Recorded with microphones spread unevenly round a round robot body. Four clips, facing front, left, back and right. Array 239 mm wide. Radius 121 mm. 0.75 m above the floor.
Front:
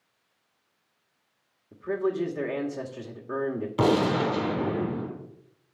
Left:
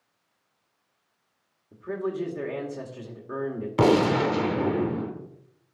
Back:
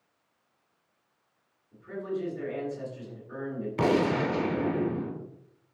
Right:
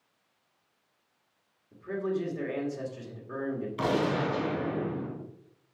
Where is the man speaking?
20° left, 2 m.